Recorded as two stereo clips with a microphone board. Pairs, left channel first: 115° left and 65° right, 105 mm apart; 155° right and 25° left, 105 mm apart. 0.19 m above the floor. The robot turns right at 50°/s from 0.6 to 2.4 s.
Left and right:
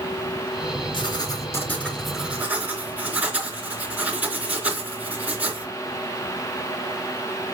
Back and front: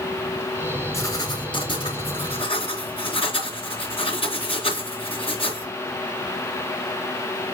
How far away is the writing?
About 3.5 m.